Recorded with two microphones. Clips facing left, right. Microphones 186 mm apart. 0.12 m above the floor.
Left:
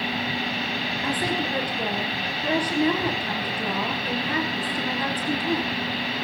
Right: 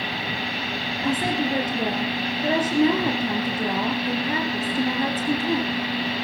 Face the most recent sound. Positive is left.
turn(degrees=-25)  # may be behind; listen again after turning